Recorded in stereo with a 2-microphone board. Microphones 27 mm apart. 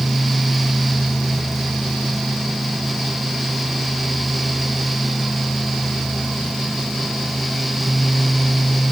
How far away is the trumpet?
No trumpet in this recording.